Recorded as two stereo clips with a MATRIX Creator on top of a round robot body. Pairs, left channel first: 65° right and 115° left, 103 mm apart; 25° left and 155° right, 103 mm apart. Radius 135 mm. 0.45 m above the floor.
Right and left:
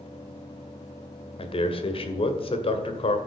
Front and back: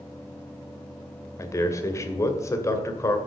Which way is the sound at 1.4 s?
40° right.